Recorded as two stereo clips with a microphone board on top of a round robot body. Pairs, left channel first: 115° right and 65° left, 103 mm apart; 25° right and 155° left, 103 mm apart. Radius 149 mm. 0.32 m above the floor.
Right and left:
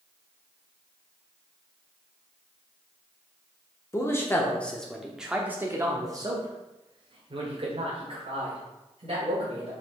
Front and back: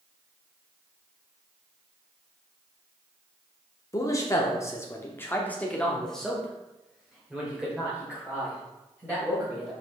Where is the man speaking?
65° right, 1.6 m; by 9.7 s 85° left, 3.5 m.